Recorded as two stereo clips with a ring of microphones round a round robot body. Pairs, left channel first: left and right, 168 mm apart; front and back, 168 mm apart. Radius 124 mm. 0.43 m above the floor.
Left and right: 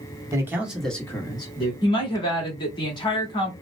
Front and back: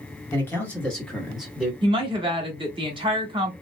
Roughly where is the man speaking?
Ahead right.